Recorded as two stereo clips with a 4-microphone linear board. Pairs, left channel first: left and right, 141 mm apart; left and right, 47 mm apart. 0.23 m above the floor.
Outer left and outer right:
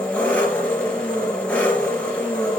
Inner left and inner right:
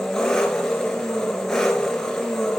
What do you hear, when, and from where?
0.0 s an engine running: 10° left (ahead or behind), 2.5 m